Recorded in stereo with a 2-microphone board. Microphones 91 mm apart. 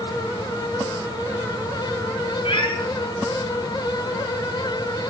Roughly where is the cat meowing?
Left.